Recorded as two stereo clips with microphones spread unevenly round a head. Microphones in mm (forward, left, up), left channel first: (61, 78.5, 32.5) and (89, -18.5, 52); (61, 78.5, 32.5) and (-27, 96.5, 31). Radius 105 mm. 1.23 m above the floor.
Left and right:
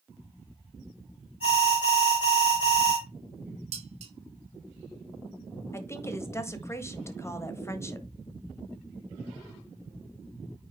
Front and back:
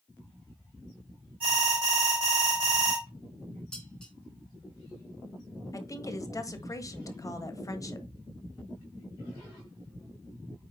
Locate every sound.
1.4 s an alarm: 160° left, 4.5 m
3.7 s dishes clattering: 100° right, 1.1 m
5.7 s a woman speaking: 40° left, 1.5 m